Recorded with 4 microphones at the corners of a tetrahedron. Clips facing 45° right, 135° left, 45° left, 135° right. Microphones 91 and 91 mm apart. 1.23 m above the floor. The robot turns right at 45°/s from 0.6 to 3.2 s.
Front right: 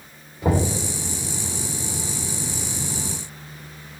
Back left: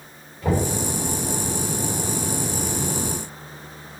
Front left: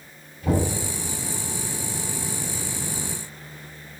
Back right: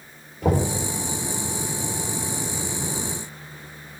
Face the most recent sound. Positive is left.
turn(degrees=0)